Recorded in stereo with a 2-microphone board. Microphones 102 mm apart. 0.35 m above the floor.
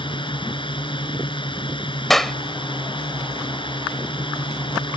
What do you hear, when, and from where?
0.0 s a drone: 55° left (ahead or behind)
2.1 s a clap: 5° left (ahead or behind)